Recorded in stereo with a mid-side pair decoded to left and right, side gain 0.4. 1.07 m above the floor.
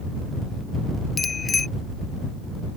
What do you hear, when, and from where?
1.2 s a bicycle bell: 35° left